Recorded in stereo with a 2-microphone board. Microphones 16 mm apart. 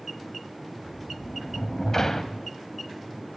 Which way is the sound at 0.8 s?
30° left (ahead or behind).